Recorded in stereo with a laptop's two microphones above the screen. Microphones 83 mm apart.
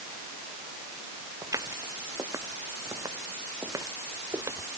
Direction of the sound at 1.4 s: 40° right (ahead or behind).